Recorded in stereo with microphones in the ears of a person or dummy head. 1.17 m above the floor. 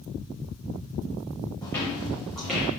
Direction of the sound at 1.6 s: 20° left (ahead or behind).